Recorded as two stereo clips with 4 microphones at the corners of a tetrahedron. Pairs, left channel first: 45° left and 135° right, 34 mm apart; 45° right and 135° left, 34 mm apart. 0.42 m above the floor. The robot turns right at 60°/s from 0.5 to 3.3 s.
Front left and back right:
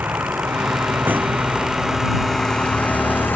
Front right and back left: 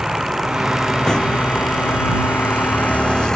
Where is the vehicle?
150° right; by 3.4 s 25° left.